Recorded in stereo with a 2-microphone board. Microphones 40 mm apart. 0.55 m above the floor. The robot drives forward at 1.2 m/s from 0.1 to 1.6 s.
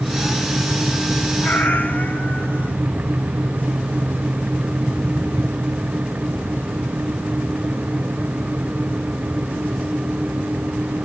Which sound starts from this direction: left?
A cat meowing, at 1.4 s.